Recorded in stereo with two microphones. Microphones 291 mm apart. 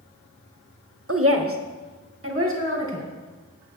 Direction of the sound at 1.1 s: 50° right (ahead or behind).